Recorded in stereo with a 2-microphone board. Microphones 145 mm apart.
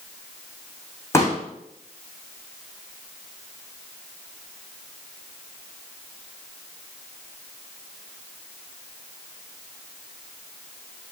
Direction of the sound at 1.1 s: 20° left (ahead or behind).